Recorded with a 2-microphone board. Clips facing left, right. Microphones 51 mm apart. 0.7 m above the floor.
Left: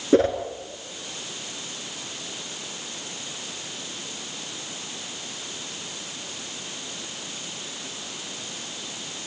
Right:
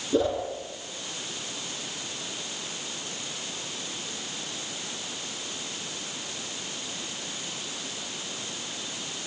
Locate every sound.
0.1 s a whoosh: 55° left (ahead or behind), 3.5 m